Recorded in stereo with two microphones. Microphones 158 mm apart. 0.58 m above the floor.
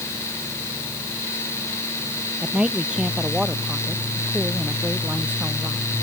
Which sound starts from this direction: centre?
A man speaking, at 2.4 s.